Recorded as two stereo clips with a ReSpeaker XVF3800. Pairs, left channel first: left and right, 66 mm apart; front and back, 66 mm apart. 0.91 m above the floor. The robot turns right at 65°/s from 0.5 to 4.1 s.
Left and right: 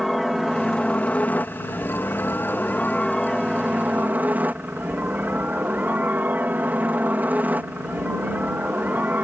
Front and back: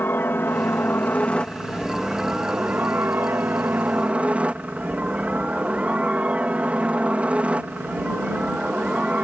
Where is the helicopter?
Straight ahead; by 9.2 s 130° right.